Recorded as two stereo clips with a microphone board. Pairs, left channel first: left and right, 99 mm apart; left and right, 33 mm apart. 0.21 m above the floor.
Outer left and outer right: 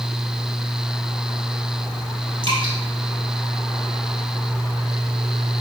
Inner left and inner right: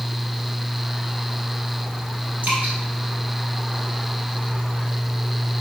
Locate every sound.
2.4 s dripping: 60° right (ahead or behind), 1.1 m